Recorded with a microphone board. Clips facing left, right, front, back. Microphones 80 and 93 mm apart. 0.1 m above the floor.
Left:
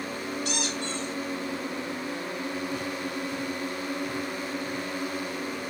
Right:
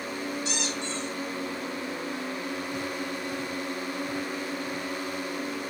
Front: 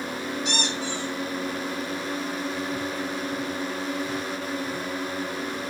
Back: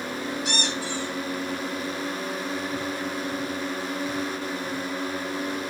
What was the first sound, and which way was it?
A squeak, 95° left.